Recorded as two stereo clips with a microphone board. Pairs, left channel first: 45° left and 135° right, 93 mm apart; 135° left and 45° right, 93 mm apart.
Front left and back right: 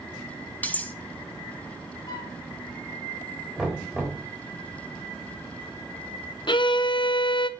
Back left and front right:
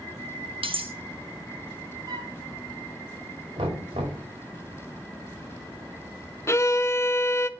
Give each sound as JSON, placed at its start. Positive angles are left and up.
{"t": 0.6, "sound": "cutlery clinking", "azimuth_deg": -30, "distance_m": 1.2}
{"t": 2.1, "sound": "a flute", "azimuth_deg": 0, "distance_m": 3.0}
{"t": 3.6, "sound": "knocking", "azimuth_deg": -50, "distance_m": 5.0}
{"t": 6.5, "sound": "a violin", "azimuth_deg": 75, "distance_m": 0.6}